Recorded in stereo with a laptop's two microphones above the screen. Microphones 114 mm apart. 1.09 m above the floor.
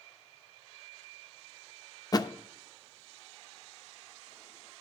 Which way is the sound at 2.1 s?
30° left (ahead or behind).